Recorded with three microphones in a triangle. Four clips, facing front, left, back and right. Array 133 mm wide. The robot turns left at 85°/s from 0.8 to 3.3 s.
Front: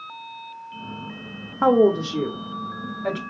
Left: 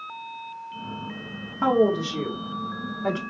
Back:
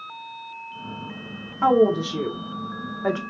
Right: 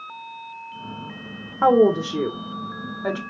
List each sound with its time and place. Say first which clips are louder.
1.6 s a woman speaking: right 5 dB, front 1 dB; 35° right, 0.9 m; by 3.2 s 175° right, 0.9 m